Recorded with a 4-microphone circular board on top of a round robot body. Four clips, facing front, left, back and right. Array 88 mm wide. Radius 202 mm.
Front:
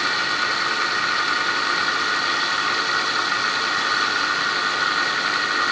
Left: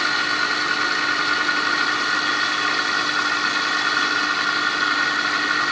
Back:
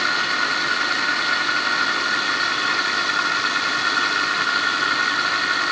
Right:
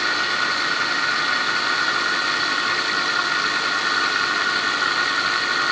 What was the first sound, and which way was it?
Only background noise.